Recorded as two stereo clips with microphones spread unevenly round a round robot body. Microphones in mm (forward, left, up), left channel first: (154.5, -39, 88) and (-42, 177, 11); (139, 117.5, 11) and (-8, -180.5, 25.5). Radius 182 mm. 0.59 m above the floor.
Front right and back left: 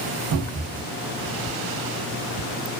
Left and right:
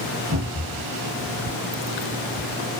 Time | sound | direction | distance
0.3 | a cupboard door | 170° left | 0.7 m